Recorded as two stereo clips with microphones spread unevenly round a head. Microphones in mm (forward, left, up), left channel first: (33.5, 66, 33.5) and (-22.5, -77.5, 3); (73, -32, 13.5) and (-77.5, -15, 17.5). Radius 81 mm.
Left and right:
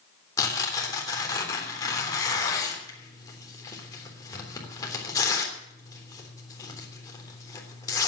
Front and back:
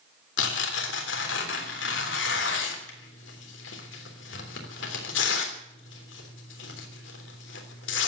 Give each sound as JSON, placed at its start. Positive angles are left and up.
{"t": 0.4, "sound": "tearing paper", "azimuth_deg": 0, "distance_m": 3.5}